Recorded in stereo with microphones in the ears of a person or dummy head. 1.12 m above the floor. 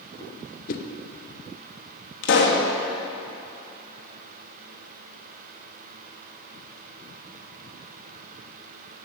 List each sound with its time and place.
0.7 s a whoosh: 45° left (ahead or behind), 0.8 m
2.2 s a pop: 65° left (ahead or behind), 1.4 m